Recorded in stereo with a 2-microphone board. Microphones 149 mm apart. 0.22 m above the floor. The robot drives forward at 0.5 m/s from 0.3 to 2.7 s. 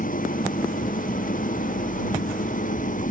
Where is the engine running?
65° left (ahead or behind); by 3.1 s 60° left (ahead or behind).